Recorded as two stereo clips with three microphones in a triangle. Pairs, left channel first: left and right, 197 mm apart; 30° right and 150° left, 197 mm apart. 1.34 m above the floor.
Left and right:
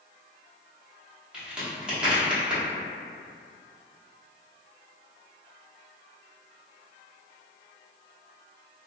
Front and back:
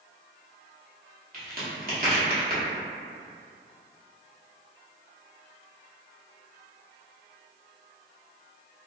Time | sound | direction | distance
1.3 | a crack | 175° right | 0.9 m